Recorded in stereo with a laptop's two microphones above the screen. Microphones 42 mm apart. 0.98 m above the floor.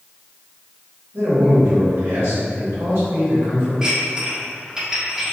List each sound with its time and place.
1.1 s a man speaking: 65° right (ahead or behind), 1.6 m
3.8 s dishes clattering: 15° right (ahead or behind), 1.0 m